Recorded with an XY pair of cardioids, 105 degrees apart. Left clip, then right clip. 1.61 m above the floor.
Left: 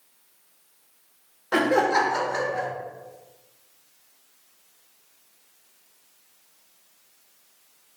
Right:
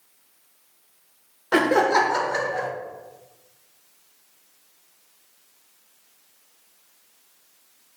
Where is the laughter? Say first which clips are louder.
Right 2 dB; 15° right, 0.6 m.